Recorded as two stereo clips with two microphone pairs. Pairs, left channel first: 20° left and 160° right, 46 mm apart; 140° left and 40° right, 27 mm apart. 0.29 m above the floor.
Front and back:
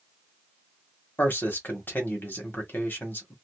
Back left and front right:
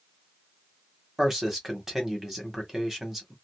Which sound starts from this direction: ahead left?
A man speaking, at 1.2 s.